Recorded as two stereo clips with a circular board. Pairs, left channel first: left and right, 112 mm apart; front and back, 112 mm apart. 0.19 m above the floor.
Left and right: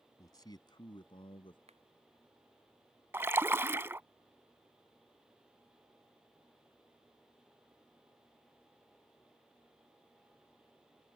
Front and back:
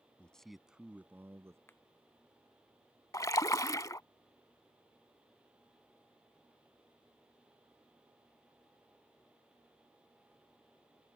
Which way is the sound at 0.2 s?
70° left.